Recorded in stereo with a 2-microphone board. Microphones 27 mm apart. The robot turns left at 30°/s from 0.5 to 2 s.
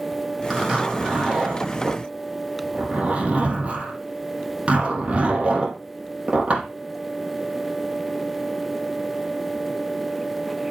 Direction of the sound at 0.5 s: Centre (ahead or behind).